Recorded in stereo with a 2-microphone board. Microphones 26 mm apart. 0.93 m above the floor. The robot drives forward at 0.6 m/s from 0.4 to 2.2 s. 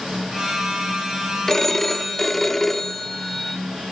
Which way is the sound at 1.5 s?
15° left (ahead or behind).